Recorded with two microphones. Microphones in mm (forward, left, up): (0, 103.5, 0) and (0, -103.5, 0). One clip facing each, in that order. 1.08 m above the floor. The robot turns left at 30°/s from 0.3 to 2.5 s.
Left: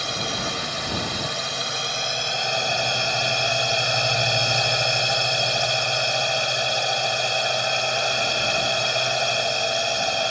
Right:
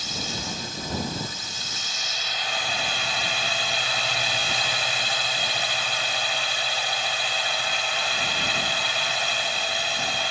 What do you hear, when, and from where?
0.0 s a drone: 110° left; by 10.3 s 45° left